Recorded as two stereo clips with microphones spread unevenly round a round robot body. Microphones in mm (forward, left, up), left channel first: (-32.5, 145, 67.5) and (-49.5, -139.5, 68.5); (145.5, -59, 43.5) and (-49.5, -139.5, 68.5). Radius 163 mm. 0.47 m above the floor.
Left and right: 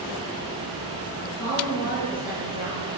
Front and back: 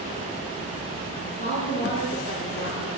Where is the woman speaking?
70° left, 10 m; by 2.9 s 65° left, 11.5 m.